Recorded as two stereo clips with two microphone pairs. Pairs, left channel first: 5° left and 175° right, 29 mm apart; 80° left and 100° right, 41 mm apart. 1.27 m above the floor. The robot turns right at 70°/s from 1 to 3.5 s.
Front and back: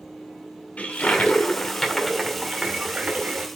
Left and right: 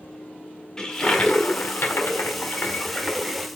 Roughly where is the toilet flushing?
Ahead.